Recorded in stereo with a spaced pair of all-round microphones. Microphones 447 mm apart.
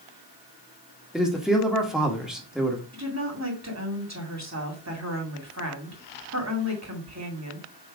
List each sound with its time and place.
1.1 s a man speaking: centre (ahead or behind), 1.4 m
2.9 s a woman speaking: 35° right (ahead or behind), 2.5 m